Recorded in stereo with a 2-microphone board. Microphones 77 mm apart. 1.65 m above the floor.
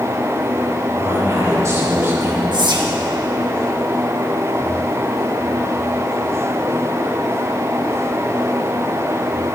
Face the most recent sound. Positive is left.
turn(degrees=-70)  # may be behind; listen again after turning